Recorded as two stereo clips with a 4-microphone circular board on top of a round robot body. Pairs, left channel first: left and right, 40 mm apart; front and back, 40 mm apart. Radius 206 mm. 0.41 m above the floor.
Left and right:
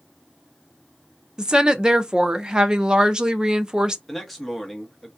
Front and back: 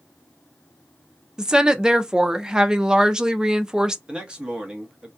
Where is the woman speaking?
135° right, 0.8 m.